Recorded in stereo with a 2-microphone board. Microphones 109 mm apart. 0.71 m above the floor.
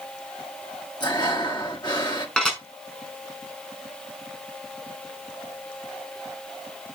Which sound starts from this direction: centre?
Dishes clattering, at 2.4 s.